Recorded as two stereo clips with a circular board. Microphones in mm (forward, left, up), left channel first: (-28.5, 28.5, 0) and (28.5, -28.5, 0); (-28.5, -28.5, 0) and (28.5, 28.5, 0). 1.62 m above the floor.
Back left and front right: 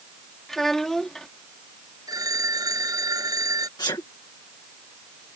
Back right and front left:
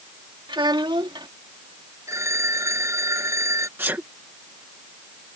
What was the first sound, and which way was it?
A child speaking, 50° left.